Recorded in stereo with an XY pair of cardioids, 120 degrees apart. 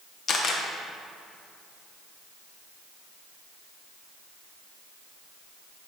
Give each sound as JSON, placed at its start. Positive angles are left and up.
{"t": 0.3, "sound": "a camera shutter", "azimuth_deg": 40, "distance_m": 1.1}